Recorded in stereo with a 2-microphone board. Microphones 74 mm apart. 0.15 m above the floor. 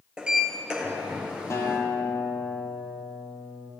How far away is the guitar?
About 1.5 m.